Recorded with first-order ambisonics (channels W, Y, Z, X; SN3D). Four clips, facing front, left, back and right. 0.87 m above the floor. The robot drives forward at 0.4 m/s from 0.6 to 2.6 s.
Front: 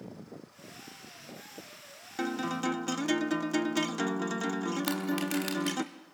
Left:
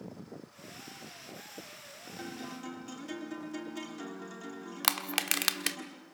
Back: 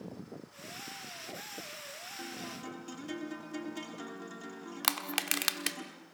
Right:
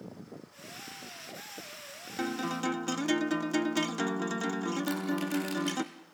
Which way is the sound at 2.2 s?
35° right.